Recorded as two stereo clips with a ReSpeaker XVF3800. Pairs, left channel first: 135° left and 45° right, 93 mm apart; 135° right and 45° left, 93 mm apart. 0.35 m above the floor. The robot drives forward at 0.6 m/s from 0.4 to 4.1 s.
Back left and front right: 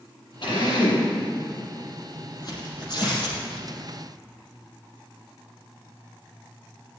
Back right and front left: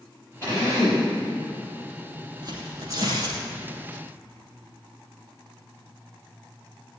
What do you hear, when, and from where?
0.4 s a drill: 160° left, 6 m
2.4 s tearing paper: 90° left, 3.5 m; by 3.4 s 100° left, 3.5 m